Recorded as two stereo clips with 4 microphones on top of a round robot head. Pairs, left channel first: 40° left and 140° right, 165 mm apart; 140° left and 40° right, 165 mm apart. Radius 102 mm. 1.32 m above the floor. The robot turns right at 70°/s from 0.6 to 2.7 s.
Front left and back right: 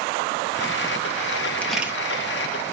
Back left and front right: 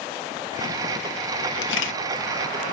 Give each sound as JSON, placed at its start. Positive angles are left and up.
{"t": 1.6, "sound": "a camera shutter", "azimuth_deg": 120, "distance_m": 1.0}